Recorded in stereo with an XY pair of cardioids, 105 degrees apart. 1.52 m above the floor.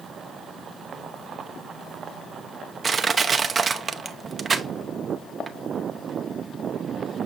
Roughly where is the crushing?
Ahead right.